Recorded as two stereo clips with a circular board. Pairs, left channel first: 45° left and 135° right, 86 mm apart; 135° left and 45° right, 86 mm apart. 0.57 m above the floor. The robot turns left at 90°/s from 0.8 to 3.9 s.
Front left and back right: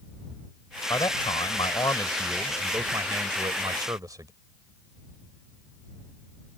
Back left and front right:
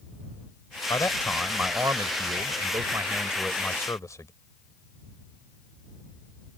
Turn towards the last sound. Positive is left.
turn(degrees=-175)